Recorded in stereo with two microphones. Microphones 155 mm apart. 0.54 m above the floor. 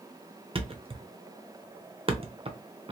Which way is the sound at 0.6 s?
40° right (ahead or behind).